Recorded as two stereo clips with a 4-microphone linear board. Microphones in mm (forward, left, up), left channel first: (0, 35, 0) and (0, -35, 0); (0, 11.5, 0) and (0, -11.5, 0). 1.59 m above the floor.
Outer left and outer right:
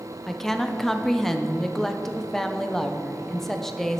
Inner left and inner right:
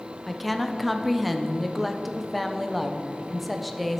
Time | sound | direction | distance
0.3 | a woman speaking | 5° left (ahead or behind) | 0.8 m